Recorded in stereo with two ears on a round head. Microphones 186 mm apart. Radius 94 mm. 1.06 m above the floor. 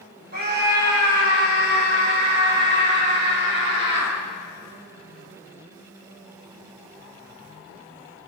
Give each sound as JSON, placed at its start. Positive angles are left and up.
{"t": 0.3, "sound": "a scream", "side_deg": -45, "distance_m": 7.5}